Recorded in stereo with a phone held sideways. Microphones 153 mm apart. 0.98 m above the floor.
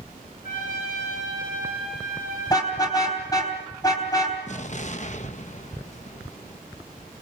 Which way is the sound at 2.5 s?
25° left (ahead or behind).